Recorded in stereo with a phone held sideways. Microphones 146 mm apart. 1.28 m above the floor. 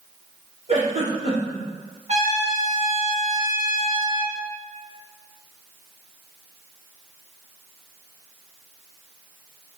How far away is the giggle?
About 1.2 m.